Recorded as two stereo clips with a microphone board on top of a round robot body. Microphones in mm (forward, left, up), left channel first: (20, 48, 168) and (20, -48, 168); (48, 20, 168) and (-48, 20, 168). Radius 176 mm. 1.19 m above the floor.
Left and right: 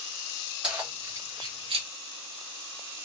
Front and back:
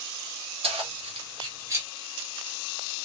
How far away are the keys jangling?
About 1.0 m.